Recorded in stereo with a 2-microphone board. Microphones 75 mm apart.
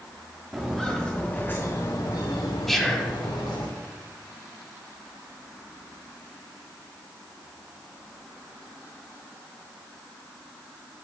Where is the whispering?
Centre (ahead or behind), 1.0 m.